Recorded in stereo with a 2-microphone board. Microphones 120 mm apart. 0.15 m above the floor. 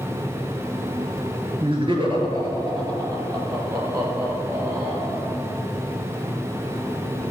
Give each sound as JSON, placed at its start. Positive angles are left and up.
{"t": 1.6, "sound": "laughter", "side_deg": -50, "distance_m": 2.0}